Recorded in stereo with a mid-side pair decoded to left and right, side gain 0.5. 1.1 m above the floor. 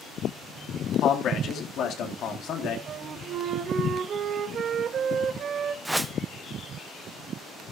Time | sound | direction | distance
1.0 | a man speaking | 60° left | 3 m
2.9 | a flute | 55° right | 1.3 m
5.8 | a whoosh | 10° right | 0.8 m